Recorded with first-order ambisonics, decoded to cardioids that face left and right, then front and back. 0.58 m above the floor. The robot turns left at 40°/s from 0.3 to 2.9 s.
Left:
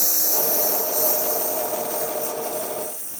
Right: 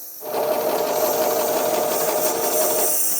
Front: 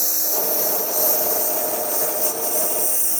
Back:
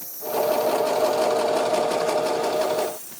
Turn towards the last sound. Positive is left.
turn(degrees=-35)